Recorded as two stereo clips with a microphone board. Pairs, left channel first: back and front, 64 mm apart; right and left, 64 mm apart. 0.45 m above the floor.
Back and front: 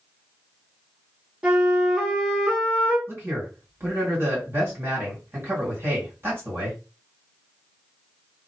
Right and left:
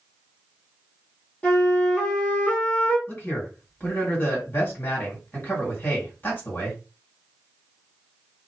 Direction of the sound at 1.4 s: 60° right.